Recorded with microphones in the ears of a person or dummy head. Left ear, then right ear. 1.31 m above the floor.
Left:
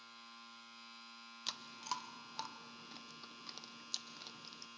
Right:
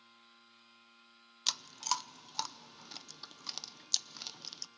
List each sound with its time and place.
0.0 s a machine running: 75° left (ahead or behind), 1.7 m
1.5 s chewing: 20° right (ahead or behind), 0.6 m